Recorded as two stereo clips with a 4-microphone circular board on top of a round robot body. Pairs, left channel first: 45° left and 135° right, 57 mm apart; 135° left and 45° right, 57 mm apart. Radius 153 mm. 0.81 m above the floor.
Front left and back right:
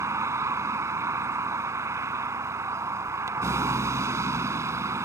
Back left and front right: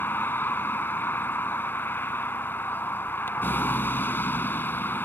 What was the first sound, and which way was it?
A vehicle, 170° right.